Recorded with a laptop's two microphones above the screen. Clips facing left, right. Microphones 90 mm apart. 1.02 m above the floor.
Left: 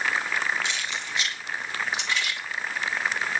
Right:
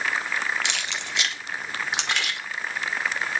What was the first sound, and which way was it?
Keys jangling, 75° right (ahead or behind).